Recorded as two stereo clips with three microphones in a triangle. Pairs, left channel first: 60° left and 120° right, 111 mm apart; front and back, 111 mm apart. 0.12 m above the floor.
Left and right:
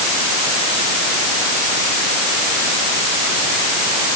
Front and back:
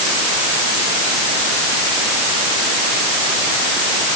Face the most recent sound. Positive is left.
No sound to turn to.